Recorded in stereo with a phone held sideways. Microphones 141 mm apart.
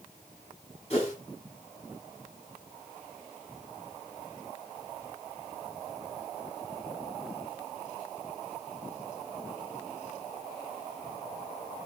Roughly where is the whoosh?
Left.